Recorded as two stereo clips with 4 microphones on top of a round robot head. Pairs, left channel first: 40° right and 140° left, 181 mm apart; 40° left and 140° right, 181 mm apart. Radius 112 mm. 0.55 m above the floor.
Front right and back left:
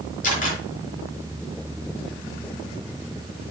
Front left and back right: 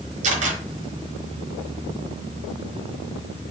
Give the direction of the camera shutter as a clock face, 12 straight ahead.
3 o'clock.